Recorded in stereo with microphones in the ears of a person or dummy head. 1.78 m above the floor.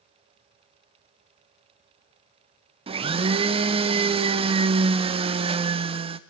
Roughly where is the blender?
Right.